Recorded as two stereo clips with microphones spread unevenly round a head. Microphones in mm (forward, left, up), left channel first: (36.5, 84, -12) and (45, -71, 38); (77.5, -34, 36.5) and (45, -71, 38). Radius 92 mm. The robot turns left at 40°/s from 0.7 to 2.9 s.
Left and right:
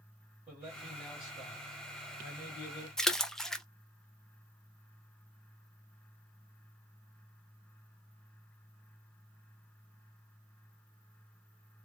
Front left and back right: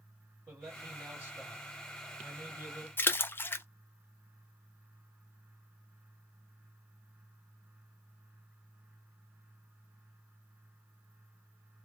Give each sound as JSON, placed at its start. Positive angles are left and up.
{"t": 0.5, "sound": "a man speaking", "azimuth_deg": -160, "distance_m": 1.7}
{"t": 3.0, "sound": "a splash", "azimuth_deg": 0, "distance_m": 0.5}